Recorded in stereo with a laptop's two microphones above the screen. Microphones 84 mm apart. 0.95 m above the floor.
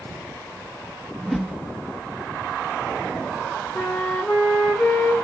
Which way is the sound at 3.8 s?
5° left (ahead or behind).